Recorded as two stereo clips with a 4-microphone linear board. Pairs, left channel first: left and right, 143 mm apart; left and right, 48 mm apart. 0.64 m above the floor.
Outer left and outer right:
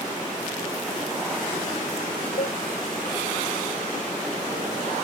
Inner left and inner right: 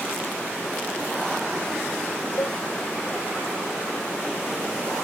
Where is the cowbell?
85° left.